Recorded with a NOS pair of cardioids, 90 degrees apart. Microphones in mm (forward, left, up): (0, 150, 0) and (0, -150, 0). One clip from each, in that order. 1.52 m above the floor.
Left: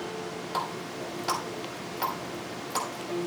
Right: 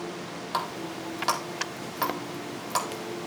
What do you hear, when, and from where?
0.5 s a running tap: 55° right, 4.5 m